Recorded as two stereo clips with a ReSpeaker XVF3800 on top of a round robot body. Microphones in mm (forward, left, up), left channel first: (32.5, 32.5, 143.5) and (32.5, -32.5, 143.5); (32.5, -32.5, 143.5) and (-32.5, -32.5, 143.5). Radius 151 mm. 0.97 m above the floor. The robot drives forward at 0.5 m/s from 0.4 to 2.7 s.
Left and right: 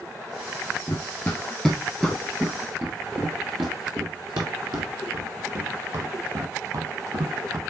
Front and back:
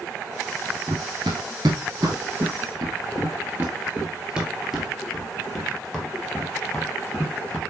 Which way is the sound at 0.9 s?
145° left.